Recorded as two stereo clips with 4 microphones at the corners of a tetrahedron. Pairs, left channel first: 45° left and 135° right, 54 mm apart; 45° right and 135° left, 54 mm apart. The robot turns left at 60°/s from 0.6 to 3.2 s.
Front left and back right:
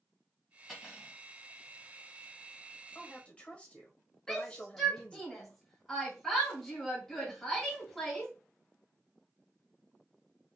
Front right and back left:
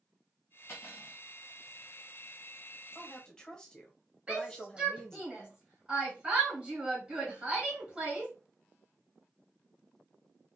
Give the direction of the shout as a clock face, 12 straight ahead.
8 o'clock.